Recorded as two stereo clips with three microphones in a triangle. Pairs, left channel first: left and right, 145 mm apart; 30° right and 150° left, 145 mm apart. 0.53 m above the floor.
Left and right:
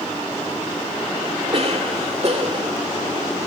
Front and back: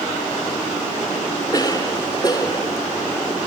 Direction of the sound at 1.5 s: 80° right.